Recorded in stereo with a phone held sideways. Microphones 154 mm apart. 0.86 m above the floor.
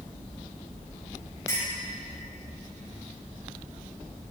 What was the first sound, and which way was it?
A clink, 20° left (ahead or behind).